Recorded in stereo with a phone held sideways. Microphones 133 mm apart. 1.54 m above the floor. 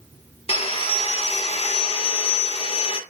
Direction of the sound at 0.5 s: 45° left (ahead or behind).